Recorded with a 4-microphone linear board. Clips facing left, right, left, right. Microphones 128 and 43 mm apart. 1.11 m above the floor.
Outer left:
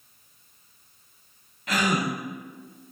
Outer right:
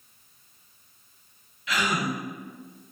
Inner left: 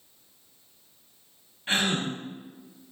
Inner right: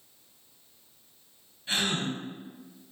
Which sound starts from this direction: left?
A gasp, at 1.7 s.